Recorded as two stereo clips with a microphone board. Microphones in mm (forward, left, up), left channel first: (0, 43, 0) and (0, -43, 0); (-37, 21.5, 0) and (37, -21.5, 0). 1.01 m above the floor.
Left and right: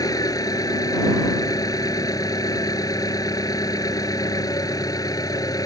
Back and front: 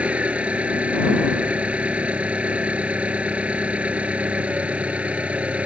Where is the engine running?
45° left.